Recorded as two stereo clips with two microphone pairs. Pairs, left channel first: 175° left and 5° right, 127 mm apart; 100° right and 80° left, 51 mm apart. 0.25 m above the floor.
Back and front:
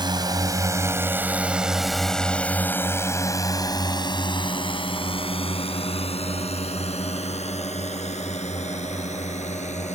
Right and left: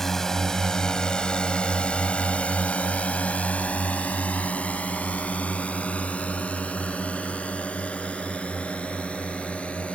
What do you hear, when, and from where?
0.0 s a drone: 25° right; by 10.0 s 165° right